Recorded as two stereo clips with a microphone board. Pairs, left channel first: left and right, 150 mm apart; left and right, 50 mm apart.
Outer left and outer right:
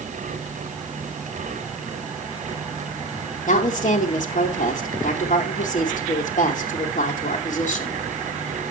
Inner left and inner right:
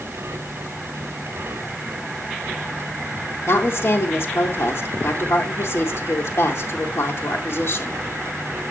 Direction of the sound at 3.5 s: 55° left (ahead or behind).